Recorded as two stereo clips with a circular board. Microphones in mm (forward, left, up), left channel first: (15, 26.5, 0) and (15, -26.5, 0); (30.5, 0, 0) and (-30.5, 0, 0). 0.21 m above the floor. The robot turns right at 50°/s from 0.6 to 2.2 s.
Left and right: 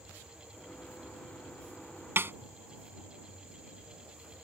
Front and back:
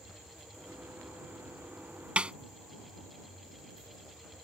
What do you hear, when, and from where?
2.2 s a snare drum: 115° right; by 2.3 s 110° right